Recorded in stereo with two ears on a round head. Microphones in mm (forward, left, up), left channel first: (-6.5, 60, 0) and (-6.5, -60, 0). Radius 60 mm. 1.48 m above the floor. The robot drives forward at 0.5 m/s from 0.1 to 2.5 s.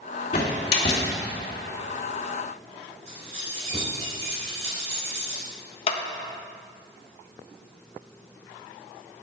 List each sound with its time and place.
0.3 s a door slam: 45° left (ahead or behind), 2.5 m; by 1.1 s 50° left (ahead or behind), 2.5 m
3.1 s keys jangling: 50° right (ahead or behind), 4.5 m
5.9 s a clap: 50° left (ahead or behind), 1.1 m